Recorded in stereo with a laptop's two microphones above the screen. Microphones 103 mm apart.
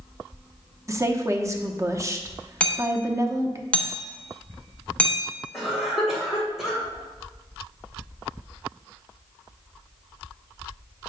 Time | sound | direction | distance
0.9 | a woman speaking | 30° right (ahead or behind) | 0.8 m
2.6 | hammering | 10° left (ahead or behind) | 0.7 m
5.5 | a cough | 5° right (ahead or behind) | 2.5 m